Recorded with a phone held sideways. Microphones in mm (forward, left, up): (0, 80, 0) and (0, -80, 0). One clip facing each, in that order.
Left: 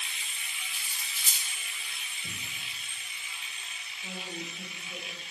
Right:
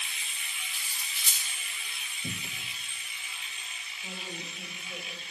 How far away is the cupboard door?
About 1.2 m.